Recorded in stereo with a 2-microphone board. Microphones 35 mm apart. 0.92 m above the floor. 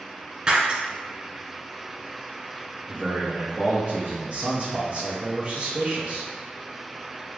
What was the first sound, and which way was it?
Breaking glass, 30° right (ahead or behind).